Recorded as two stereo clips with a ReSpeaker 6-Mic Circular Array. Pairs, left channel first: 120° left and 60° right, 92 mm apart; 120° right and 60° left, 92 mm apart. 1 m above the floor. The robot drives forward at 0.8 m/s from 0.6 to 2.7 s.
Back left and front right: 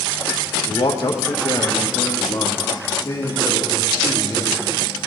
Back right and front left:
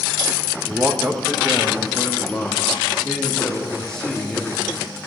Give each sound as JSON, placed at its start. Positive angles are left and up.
{"t": 0.7, "sound": "a man speaking", "azimuth_deg": 115, "distance_m": 1.1}